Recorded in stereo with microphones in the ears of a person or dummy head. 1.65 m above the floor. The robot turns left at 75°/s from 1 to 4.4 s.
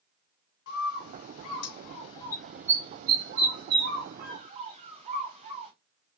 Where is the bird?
70° left (ahead or behind), 0.8 m; by 5.7 s 35° right (ahead or behind), 0.8 m.